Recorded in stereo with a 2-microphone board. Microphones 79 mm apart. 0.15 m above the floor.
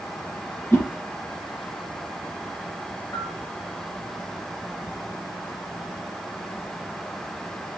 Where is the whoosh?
35° left (ahead or behind), 2 m.